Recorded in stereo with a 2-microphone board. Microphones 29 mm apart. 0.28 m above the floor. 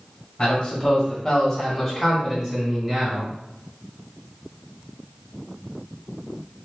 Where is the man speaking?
30° left (ahead or behind), 1.8 m; by 3.3 s 25° right (ahead or behind), 1.8 m.